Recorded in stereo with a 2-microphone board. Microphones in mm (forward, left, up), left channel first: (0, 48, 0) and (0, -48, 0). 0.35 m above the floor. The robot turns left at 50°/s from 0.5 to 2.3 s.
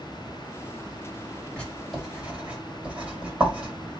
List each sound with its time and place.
1.6 s writing: 10° left (ahead or behind), 1.6 m; by 3.7 s 15° right (ahead or behind), 1.6 m